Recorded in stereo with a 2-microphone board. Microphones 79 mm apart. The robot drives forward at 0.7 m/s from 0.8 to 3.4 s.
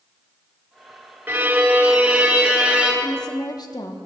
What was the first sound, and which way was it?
A violin, 25° right (ahead or behind).